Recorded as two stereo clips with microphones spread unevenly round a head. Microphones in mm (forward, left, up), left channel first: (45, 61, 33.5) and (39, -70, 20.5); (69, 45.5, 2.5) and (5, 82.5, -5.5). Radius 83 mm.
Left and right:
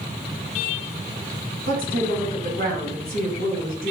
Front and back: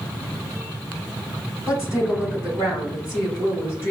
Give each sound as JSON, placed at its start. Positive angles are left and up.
{"t": 1.7, "sound": "a woman speaking", "azimuth_deg": -130, "distance_m": 2.0}